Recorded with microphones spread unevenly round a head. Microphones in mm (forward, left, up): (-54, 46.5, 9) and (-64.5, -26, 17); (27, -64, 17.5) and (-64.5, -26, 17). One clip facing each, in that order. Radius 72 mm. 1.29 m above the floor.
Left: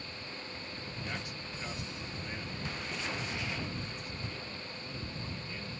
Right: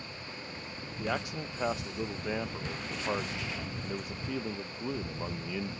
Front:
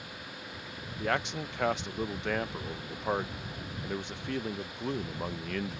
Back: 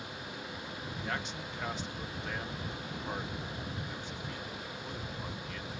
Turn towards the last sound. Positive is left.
turn(degrees=-45)